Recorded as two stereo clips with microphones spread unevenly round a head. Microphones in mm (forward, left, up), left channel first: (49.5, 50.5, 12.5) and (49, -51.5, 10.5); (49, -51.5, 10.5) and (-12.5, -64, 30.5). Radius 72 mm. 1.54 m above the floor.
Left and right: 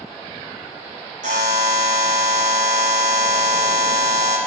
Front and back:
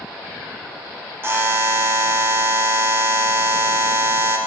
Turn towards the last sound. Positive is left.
turn(degrees=-115)